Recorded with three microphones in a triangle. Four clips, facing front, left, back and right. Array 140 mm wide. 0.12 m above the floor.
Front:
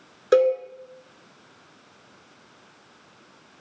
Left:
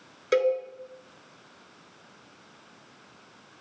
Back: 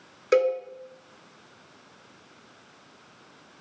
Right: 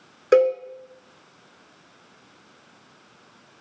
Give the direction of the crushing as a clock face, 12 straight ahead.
I don't hear crushing.